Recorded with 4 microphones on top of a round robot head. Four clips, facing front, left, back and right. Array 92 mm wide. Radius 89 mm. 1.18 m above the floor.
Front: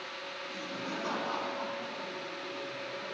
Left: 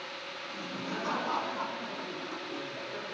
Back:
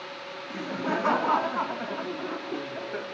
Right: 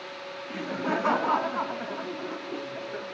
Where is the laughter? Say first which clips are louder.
Right 10 dB, back 11 dB; 125° right, 3 m; by 3.0 s 160° right, 4 m.